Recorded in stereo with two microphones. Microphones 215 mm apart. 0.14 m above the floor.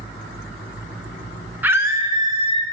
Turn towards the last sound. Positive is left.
turn(degrees=-30)  # may be behind; listen again after turning